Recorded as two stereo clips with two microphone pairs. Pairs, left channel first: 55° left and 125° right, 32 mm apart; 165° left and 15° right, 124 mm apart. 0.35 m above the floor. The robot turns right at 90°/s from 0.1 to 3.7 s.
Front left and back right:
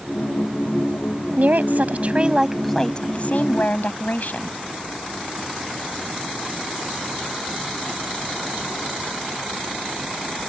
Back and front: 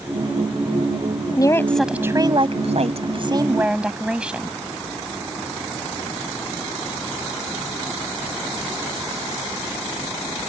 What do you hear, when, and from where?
1.4 s a woman speaking: 150° right; by 4.6 s 65° left